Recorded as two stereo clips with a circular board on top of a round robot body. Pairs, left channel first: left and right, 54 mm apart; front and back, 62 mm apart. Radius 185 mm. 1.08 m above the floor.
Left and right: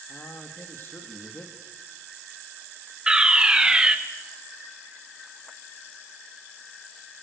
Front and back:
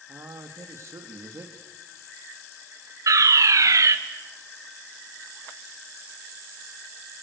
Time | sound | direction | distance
0.1 | a man speaking | 135° left | 2 m
3.1 | a fire alarm | 165° right | 2.5 m